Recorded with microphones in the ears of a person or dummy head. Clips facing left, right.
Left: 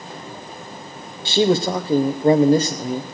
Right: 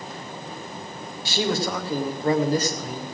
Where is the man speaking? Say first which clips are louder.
Left 8 dB; 20° left (ahead or behind), 0.7 m.